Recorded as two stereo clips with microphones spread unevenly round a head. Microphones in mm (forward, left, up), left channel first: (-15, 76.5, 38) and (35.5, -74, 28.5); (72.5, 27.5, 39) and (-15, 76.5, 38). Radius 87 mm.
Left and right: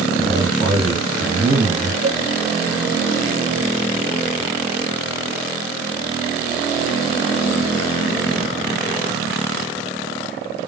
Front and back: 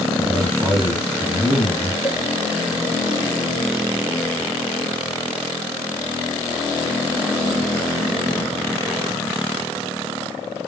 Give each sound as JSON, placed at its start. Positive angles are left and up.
{"t": 0.2, "sound": "a man speaking", "azimuth_deg": -135, "distance_m": 1.7}
{"t": 2.0, "sound": "a cowbell", "azimuth_deg": -135, "distance_m": 1.0}